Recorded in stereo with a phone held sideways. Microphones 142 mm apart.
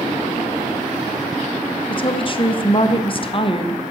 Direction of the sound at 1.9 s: 35° left (ahead or behind).